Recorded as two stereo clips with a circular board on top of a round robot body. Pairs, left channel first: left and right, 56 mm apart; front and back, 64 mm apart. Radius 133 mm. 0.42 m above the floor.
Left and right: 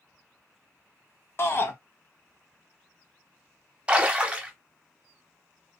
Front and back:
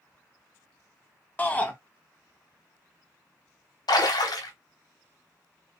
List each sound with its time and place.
1.4 s a shout: 60° left, 1.1 m
3.9 s a splash: 15° right, 0.8 m